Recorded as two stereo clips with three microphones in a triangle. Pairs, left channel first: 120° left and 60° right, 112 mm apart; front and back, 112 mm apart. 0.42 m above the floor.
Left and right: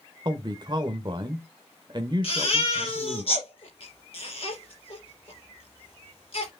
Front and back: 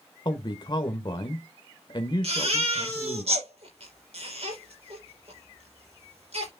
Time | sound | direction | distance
0.2 | a man speaking | 30° right | 1.1 m
2.2 | a baby crying | 155° left | 5.5 m